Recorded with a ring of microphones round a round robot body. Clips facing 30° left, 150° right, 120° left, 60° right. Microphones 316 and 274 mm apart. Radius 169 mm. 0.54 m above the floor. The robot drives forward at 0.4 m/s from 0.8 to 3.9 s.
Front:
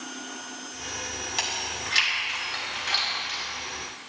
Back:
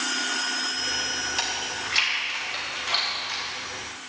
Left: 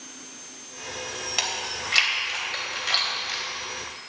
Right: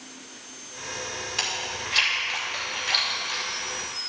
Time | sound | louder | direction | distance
1.4 | chewing | back 1 dB, even | 110° left | 3.5 m